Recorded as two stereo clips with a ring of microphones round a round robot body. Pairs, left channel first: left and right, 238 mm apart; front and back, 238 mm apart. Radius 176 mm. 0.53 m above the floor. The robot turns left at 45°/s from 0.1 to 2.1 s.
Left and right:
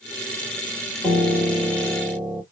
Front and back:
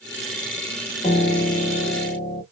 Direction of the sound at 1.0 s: 35° left.